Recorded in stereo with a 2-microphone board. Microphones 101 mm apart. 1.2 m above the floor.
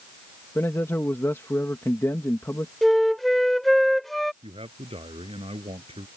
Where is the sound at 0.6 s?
25° left (ahead or behind).